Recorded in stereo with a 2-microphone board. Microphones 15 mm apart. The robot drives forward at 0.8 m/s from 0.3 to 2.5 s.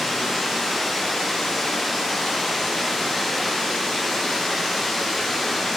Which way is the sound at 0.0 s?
85° left.